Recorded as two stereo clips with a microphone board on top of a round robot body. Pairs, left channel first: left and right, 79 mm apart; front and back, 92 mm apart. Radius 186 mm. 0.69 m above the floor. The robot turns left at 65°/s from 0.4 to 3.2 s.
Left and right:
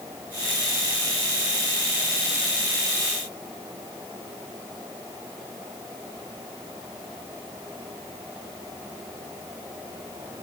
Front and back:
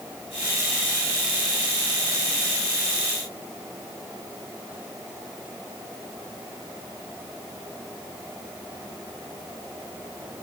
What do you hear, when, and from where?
Only background noise.